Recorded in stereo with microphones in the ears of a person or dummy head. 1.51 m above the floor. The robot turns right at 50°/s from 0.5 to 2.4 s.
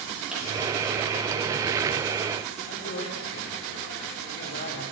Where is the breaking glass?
5° right (ahead or behind), 9.5 m.